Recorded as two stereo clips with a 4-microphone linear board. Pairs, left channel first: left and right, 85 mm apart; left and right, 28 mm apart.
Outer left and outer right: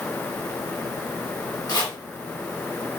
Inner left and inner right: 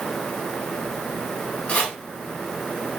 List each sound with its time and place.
1.7 s chopping: 55° left (ahead or behind), 1.6 m